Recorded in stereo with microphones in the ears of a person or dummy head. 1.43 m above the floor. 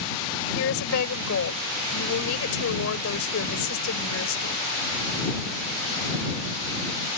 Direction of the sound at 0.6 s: 75° left (ahead or behind).